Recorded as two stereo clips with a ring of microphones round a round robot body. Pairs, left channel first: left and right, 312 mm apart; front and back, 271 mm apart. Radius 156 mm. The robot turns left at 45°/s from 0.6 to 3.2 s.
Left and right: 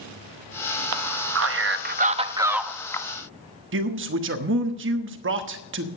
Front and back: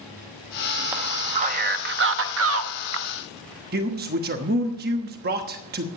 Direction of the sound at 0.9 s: 100° right.